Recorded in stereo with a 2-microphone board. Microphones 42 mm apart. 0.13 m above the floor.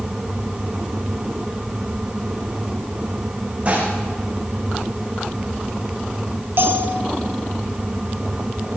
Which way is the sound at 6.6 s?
60° right (ahead or behind).